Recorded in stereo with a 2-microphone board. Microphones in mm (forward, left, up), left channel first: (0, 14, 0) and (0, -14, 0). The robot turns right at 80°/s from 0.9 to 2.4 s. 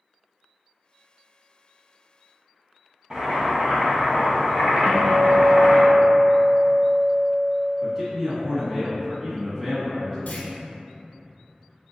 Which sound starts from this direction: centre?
A man speaking, at 7.8 s.